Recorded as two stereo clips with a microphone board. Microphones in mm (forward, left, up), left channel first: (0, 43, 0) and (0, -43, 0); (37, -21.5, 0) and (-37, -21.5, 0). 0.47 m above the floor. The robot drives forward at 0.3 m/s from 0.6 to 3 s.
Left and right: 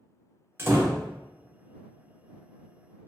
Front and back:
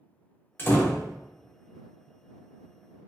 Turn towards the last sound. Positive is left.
turn(degrees=-150)